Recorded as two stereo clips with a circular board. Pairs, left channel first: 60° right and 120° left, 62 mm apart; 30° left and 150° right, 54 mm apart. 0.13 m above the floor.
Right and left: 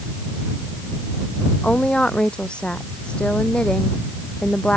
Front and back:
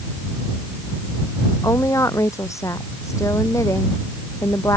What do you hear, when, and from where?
1.6 s a woman speaking: 15° left